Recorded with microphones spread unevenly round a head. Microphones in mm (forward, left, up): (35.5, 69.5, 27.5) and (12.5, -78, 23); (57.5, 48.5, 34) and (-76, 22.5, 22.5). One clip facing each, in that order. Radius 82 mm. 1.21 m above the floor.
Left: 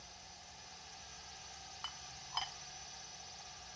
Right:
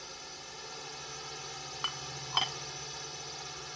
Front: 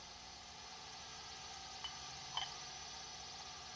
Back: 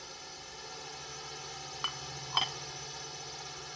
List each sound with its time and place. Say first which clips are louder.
0.0 s a drone: right 9 dB, back 8 dB; 130° right
1.8 s dishes clattering: right 10 dB, back 10 dB; 135° right